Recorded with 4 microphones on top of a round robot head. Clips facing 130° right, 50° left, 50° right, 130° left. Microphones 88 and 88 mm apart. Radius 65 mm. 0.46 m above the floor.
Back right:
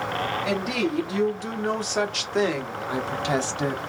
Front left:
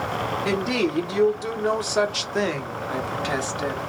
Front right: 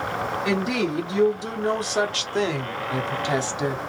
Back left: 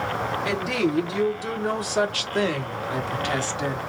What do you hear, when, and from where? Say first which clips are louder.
0.5 s a woman speaking: front left 4 dB, front right 1 dB; 10° left, 1.7 m; by 3.8 s 110° right, 1.4 m